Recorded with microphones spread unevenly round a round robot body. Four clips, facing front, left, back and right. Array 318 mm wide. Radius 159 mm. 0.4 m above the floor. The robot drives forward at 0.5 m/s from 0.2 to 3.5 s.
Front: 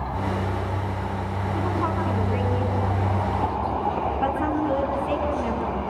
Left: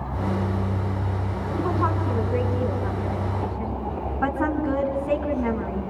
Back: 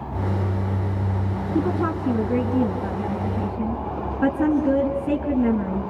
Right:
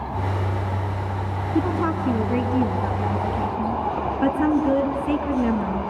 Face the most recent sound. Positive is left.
turn(degrees=-145)